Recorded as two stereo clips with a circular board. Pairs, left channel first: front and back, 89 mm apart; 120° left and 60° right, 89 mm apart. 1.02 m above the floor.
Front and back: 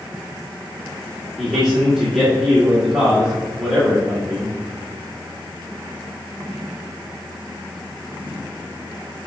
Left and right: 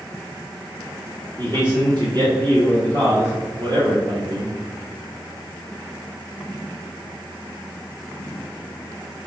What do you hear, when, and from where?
1.4 s a man speaking: 95° right, 2.0 m